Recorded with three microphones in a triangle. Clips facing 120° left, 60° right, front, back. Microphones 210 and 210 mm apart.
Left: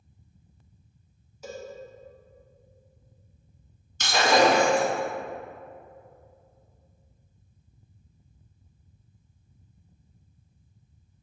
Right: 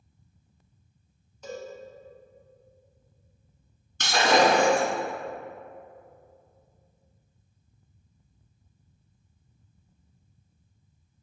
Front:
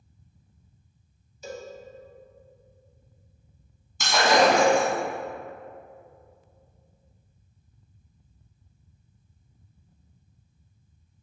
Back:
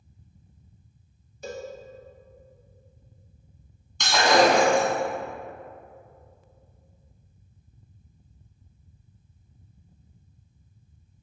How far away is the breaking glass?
About 1.0 m.